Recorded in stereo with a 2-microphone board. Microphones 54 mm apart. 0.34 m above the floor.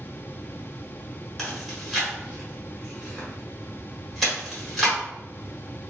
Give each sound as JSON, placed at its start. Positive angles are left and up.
{"t": 1.4, "sound": "chewing", "side_deg": 5, "distance_m": 1.4}